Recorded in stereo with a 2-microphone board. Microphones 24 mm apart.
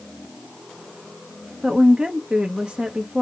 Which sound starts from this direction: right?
A woman speaking, at 1.6 s.